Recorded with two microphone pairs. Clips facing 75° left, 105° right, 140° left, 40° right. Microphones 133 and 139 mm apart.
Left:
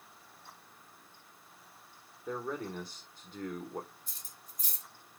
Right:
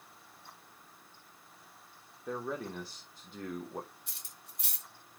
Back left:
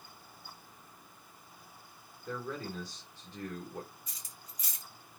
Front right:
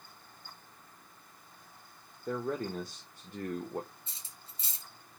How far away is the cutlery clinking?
About 0.7 m.